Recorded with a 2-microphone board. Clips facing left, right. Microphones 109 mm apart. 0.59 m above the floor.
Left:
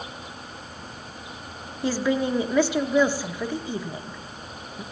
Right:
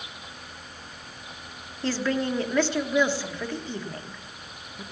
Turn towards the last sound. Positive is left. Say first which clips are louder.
# left 3 dB
turn(degrees=10)  # may be behind; listen again after turning